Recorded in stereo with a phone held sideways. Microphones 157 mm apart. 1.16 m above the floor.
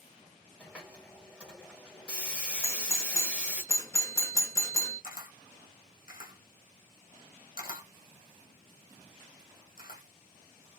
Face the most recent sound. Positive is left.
turn(degrees=65)  # may be behind; listen again after turning